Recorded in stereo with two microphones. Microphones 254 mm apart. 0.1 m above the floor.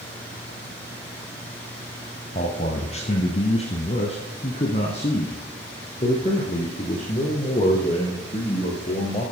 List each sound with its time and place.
2.4 s a man speaking: 25° left (ahead or behind), 1.5 m